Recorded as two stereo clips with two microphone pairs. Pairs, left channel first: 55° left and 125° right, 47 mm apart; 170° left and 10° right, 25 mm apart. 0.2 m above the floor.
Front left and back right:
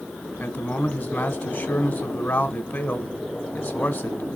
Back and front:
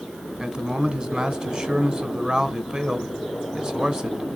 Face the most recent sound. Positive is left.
turn(degrees=25)